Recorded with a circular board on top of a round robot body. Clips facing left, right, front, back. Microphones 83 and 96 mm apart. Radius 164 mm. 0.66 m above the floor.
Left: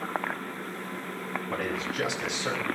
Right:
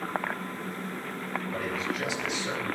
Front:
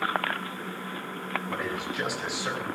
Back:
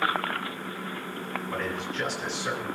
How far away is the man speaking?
About 6.5 m.